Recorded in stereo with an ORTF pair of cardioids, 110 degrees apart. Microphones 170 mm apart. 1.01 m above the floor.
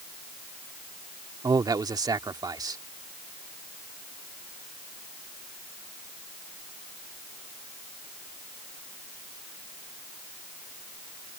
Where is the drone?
No drone in this recording.